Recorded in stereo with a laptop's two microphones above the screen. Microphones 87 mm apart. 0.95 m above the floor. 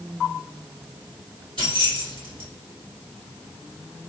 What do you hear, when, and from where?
1.6 s keys jangling: 80° right, 1.8 m